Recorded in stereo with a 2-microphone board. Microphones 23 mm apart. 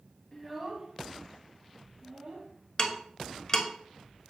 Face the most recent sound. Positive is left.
turn(degrees=35)  # may be behind; listen again after turning